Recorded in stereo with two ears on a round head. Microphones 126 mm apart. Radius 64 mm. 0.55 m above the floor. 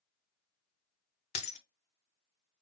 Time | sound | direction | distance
1.4 | breaking glass | 50° left (ahead or behind) | 0.9 m